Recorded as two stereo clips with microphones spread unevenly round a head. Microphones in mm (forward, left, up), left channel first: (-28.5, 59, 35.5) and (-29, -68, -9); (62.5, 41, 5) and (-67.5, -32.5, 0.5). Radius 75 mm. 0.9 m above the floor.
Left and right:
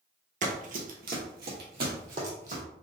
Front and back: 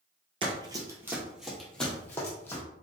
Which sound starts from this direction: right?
Running footsteps, at 0.4 s.